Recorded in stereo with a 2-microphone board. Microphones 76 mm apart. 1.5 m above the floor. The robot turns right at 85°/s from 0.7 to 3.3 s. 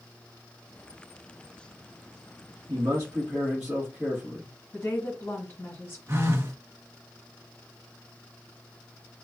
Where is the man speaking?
60° right, 1.5 m; by 4.5 s 5° right, 1.5 m.